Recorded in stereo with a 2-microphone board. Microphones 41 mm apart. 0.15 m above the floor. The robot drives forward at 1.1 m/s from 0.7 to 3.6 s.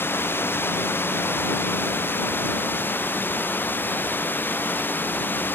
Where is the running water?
65° left (ahead or behind); by 5.5 s 55° left (ahead or behind).